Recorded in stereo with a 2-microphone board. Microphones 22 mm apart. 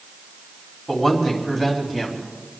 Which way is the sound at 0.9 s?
Centre (ahead or behind).